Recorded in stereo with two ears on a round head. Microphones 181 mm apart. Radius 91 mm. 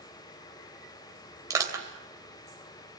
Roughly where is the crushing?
Centre.